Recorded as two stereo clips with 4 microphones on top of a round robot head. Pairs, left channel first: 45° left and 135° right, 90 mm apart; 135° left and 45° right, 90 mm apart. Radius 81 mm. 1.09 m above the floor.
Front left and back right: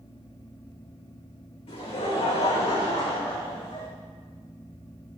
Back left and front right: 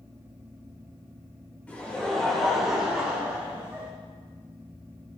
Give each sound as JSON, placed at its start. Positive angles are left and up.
{"t": 1.7, "sound": "laughter", "azimuth_deg": 60, "distance_m": 3.5}